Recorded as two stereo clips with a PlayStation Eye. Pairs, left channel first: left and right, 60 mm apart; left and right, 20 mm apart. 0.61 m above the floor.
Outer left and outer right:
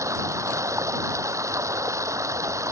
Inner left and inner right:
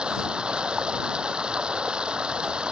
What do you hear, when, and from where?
0.0 s running water: 55° right (ahead or behind)